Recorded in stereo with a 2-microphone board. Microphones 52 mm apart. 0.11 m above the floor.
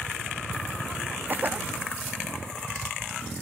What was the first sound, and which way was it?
A cough, 40° right (ahead or behind).